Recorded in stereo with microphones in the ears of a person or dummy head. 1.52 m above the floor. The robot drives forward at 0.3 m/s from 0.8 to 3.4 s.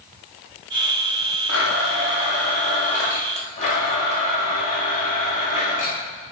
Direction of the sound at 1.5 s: 75° left (ahead or behind).